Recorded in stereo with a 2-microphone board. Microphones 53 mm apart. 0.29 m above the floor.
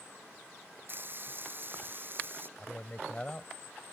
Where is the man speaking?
25° left (ahead or behind).